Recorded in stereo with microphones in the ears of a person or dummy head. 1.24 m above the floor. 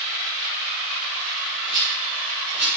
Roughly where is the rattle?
Left.